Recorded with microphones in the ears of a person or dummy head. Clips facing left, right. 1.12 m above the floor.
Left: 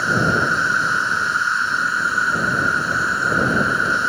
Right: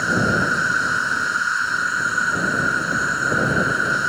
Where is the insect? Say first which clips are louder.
Even; 5° right (ahead or behind).